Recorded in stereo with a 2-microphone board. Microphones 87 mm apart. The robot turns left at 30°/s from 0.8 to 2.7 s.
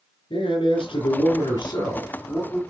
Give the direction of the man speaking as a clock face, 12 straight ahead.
9 o'clock.